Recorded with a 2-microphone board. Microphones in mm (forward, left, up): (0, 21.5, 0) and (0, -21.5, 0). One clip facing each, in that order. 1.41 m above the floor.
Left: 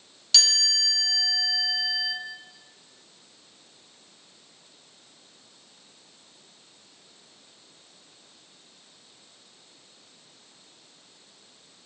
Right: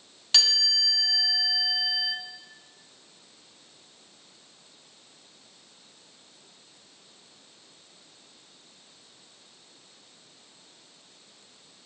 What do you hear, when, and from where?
0.3 s a chime: 25° right (ahead or behind), 1.0 m